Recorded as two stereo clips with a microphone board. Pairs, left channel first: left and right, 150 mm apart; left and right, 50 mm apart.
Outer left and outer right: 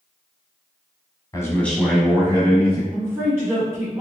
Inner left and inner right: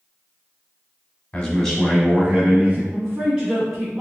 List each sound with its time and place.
1.3 s a man speaking: 25° left (ahead or behind), 1.0 m; by 2.8 s 45° right (ahead or behind), 1.3 m
2.9 s a woman speaking: 15° right (ahead or behind), 1.2 m